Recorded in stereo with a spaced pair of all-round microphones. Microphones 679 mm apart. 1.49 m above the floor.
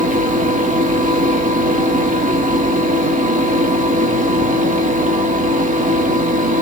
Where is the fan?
10° right (ahead or behind), 0.9 m.